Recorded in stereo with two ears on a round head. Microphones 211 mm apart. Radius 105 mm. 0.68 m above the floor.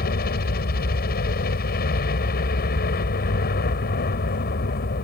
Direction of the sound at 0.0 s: 40° left (ahead or behind).